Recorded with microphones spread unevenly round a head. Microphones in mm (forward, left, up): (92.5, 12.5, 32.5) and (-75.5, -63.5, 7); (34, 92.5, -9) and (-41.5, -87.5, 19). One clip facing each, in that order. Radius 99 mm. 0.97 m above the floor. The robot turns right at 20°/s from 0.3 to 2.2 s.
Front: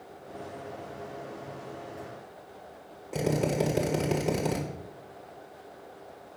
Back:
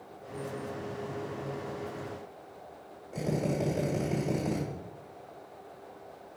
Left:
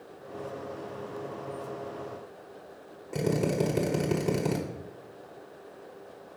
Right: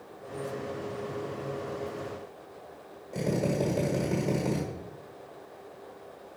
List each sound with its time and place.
3.1 s a drill: 50° left, 1.6 m